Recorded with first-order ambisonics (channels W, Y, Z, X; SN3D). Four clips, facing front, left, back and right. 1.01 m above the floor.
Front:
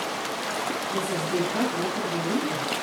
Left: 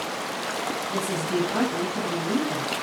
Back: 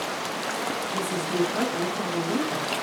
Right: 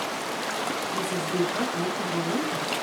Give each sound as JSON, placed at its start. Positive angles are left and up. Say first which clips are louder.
{"t": 0.9, "sound": "a woman speaking", "louder": "left 1 dB, front 1 dB", "azimuth_deg": 80, "distance_m": 8.5}